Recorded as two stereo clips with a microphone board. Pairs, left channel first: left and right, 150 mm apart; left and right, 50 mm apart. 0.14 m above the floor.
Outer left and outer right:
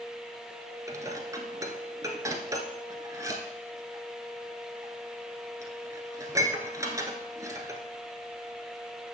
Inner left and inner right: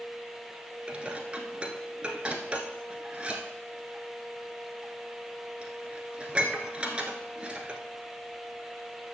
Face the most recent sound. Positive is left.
turn(degrees=-20)  # may be behind; listen again after turning